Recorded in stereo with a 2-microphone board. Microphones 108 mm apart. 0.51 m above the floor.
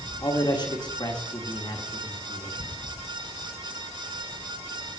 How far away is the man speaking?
About 1.0 m.